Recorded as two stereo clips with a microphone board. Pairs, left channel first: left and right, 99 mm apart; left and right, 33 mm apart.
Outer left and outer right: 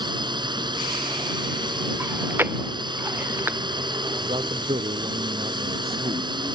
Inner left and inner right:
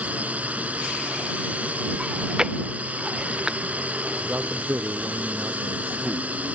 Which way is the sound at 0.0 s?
50° right (ahead or behind).